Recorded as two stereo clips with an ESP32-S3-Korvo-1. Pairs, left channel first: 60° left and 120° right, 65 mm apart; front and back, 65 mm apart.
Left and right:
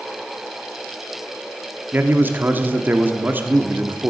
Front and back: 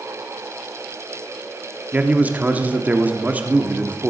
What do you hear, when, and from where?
1.9 s a man speaking: 140° right, 1.3 m